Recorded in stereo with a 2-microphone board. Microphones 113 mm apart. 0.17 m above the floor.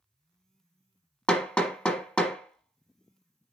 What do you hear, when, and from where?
1.3 s hammering: 10° left (ahead or behind), 1.1 m